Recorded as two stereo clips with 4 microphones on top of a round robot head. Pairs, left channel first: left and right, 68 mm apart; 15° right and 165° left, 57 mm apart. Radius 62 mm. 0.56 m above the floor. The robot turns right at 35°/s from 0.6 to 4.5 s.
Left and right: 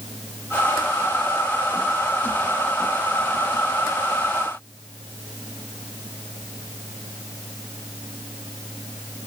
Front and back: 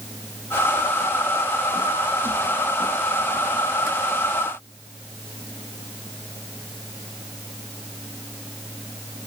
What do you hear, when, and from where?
Only background noise.